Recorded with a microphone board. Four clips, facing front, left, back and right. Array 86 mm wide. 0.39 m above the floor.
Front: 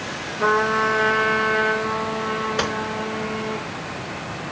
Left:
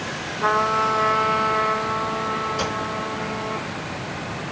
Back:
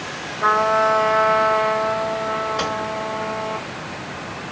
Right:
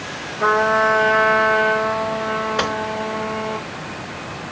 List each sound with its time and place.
0.4 s a trumpet: 45° right, 3 m
2.6 s a gunshot: 70° right, 4 m